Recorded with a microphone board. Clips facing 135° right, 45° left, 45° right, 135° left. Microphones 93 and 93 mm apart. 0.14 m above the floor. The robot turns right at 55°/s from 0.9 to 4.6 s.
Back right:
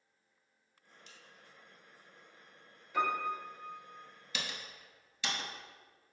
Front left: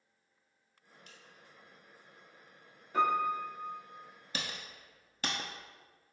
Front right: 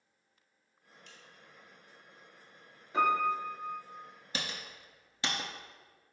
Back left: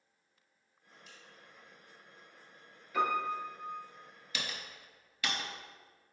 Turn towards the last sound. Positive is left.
turn(degrees=15)